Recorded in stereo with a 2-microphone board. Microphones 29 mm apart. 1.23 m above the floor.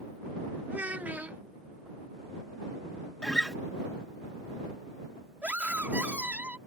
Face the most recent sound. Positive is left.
turn(degrees=-70)  # may be behind; listen again after turning